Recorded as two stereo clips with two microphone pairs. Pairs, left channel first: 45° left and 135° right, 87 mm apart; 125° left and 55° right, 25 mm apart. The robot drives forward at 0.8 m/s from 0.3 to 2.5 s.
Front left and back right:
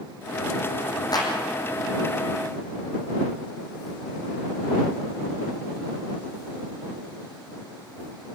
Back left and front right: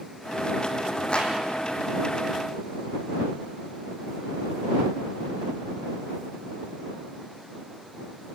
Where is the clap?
80° left, 4 m; by 1.3 s 85° left, 4 m.